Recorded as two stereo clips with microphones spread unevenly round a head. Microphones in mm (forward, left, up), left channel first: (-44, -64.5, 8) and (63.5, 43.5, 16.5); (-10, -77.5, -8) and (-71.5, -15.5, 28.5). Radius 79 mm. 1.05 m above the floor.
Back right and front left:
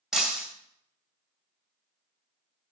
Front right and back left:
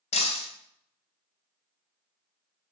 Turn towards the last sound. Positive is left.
turn(degrees=-40)